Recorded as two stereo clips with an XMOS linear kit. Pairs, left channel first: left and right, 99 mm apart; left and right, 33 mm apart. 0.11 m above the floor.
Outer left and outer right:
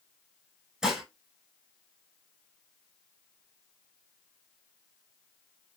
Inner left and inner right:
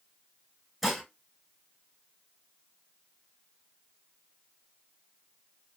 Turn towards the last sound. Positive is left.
turn(degrees=-5)  # may be behind; listen again after turning